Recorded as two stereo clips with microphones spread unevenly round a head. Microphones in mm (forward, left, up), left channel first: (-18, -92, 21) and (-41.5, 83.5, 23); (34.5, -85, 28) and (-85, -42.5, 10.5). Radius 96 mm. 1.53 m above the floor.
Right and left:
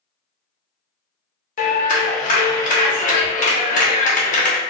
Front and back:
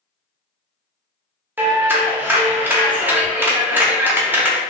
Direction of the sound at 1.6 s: 120° right.